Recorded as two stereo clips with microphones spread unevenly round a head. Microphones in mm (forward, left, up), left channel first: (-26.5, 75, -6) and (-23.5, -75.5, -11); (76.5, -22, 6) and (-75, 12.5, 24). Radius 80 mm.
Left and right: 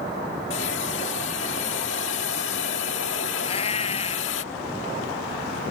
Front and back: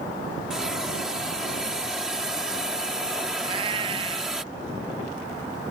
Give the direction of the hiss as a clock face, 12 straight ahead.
9 o'clock.